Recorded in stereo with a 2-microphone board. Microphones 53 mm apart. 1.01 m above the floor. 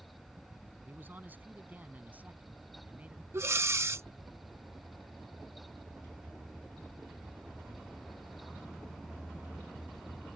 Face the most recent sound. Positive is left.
turn(degrees=-50)  # may be behind; listen again after turning